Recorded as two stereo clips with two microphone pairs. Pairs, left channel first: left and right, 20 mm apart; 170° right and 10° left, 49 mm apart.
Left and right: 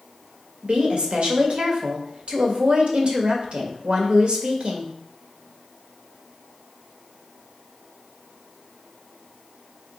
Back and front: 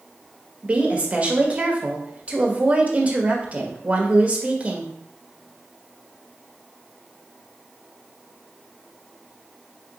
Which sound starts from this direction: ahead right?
A woman speaking, at 0.6 s.